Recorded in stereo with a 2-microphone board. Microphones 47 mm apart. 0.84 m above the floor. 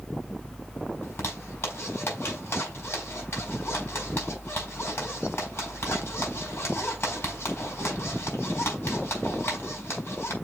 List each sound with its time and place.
1.0 s a zipper: 65° left (ahead or behind), 4.5 m